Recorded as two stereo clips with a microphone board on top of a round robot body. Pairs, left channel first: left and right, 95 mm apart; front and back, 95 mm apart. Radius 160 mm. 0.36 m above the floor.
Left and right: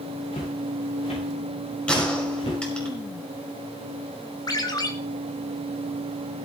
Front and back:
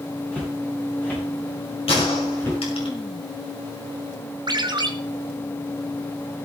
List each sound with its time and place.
0.3 s footsteps: 75° left, 7 m; by 2.6 s 65° left, 7 m
1.9 s a gunshot: 15° left, 5.5 m
4.5 s a ringtone: 140° left, 1.6 m